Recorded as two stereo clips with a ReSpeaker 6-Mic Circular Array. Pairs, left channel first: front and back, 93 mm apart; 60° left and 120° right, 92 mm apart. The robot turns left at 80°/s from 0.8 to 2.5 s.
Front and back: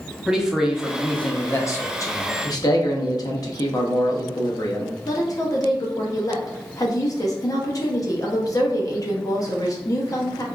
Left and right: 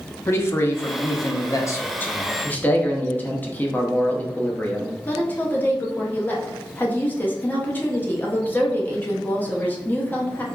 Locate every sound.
0.3 s a man speaking: 100° left, 0.7 m; by 2.3 s 20° right, 0.7 m
2.4 s a man speaking: straight ahead, 0.7 m; by 5.0 s 5° right, 0.7 m
5.1 s a woman speaking: 5° left, 0.8 m